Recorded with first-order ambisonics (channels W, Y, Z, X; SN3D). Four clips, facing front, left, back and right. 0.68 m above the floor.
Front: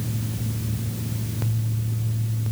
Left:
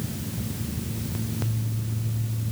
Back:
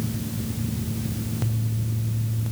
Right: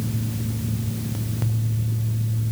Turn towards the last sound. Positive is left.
No sound to turn to.